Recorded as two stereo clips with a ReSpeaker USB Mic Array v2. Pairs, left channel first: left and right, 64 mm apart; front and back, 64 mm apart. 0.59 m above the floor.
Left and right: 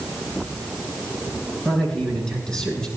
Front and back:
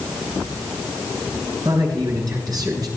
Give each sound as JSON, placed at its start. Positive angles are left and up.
{"t": 1.6, "sound": "a man speaking", "azimuth_deg": 170, "distance_m": 8.5}